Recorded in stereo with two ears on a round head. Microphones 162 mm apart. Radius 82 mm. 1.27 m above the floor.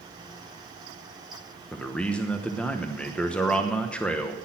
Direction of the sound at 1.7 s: 5° left (ahead or behind).